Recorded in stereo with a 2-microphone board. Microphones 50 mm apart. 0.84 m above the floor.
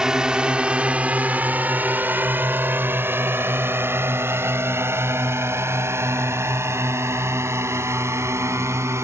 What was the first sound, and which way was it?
A drone, 15° right (ahead or behind).